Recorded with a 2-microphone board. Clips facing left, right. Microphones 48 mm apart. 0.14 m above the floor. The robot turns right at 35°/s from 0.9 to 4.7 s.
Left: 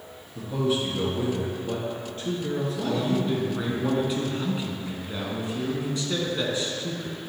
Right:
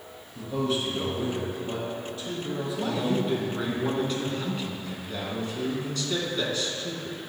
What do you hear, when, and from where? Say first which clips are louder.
0.3 s a man speaking: left 2 dB; 5° left, 2 m; by 3.8 s 105° left, 2 m
2.8 s a man speaking: even; 10° right (ahead or behind), 1.1 m; by 7.2 s 20° left (ahead or behind), 1.1 m